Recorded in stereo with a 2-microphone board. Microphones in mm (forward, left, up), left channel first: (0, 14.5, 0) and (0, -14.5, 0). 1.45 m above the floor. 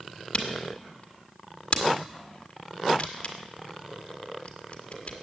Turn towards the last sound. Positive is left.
turn(degrees=40)  # may be behind; listen again after turning